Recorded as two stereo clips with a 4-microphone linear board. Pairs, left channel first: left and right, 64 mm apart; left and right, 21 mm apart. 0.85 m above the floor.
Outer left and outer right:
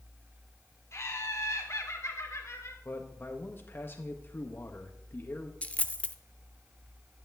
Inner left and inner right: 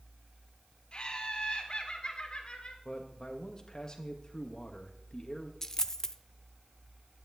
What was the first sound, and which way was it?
Laughter, 50° left (ahead or behind).